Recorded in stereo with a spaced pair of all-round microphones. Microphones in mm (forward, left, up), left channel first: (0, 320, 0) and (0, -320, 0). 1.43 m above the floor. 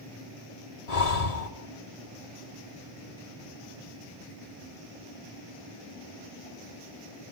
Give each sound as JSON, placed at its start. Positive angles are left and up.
{"t": 0.9, "sound": "breathing", "side_deg": 70, "distance_m": 2.0}